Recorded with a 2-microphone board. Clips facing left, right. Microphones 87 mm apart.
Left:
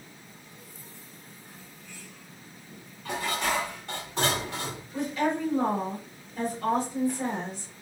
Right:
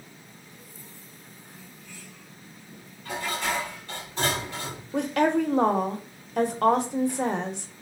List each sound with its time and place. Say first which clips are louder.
3.0 s dishes clattering: left 1 dB; 70° left (ahead or behind), 1.7 m
4.9 s a woman speaking: right 5 dB; 75° right (ahead or behind), 0.6 m